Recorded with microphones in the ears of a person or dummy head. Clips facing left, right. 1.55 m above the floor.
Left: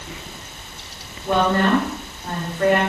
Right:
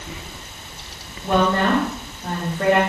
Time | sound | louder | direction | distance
1.2 | a woman speaking | even | 20° right (ahead or behind) | 3.5 m